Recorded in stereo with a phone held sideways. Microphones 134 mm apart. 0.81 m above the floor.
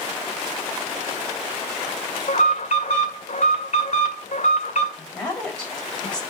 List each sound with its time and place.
2.3 s an alarm: 65° left (ahead or behind), 2 m
5.0 s a woman speaking: 10° left (ahead or behind), 4.5 m